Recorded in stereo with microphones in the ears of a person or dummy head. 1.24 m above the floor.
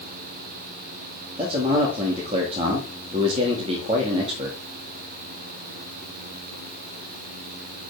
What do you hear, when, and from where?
1.4 s a man speaking: 30° right (ahead or behind), 1.7 m